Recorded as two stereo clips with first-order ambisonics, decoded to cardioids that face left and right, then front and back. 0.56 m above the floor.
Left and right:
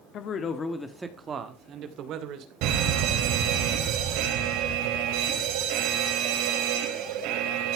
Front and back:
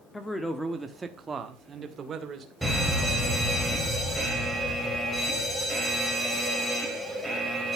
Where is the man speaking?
80° left, 1.6 m; by 2.5 s 120° right, 2.5 m.